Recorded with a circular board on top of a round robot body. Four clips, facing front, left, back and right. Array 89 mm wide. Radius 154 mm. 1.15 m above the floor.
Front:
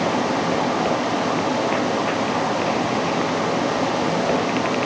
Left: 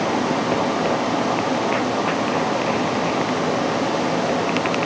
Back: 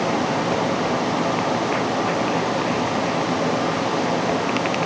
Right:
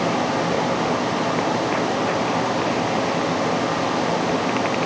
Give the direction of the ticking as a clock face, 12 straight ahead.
I don't hear ticking.